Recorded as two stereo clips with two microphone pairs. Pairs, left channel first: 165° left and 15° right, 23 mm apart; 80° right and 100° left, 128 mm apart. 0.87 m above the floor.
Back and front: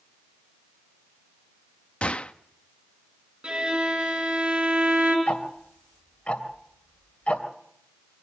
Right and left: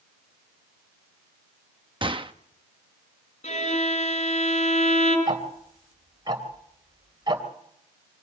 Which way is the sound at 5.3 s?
155° left.